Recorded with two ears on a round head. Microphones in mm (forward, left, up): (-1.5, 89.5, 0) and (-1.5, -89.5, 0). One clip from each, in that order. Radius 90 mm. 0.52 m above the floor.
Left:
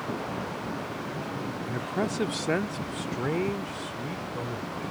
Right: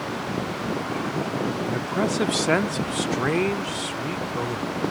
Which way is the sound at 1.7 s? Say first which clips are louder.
Right 2 dB; centre (ahead or behind).